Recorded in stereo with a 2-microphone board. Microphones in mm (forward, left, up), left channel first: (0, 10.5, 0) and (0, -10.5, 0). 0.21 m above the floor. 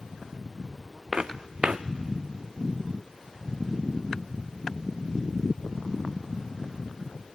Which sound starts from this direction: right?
Footsteps, at 1.1 s.